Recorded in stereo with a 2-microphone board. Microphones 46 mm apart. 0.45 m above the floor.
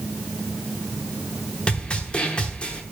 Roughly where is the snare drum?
Left.